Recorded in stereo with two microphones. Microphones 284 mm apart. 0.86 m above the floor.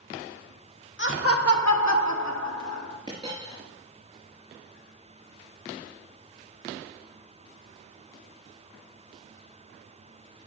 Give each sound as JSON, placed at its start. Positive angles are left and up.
{"t": 1.0, "sound": "laughter", "side_deg": 40, "distance_m": 1.2}
{"t": 3.1, "sound": "a dropped coin", "side_deg": -15, "distance_m": 4.5}